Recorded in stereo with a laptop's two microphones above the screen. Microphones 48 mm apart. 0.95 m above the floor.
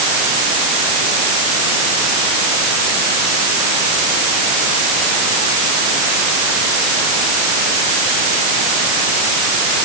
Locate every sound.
Only background noise.